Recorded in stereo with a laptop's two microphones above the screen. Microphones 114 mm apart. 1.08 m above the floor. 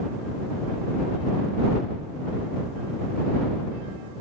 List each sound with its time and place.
Only background noise.